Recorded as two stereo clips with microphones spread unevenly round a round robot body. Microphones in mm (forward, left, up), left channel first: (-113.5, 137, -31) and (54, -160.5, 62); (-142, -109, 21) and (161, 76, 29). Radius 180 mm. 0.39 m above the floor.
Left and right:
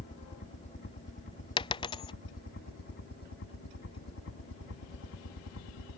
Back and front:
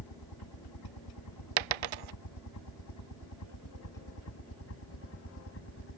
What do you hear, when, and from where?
0.0 s a helicopter: 175° right; by 6.0 s 155° left
1.6 s a dropped coin: 40° left